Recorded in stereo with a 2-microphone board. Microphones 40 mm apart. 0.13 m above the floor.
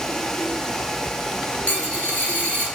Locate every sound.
1.7 s a dropped coin: 35° left (ahead or behind), 1.5 m